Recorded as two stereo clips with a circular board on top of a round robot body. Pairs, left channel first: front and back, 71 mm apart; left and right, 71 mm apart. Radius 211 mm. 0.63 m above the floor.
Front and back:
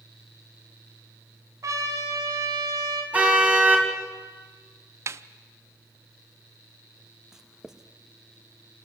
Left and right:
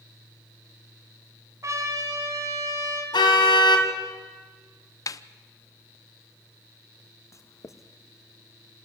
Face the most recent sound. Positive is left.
turn(degrees=100)